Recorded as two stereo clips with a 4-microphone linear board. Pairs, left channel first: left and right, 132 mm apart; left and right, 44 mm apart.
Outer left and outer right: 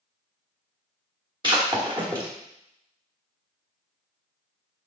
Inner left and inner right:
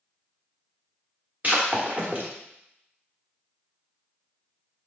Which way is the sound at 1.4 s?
35° right (ahead or behind).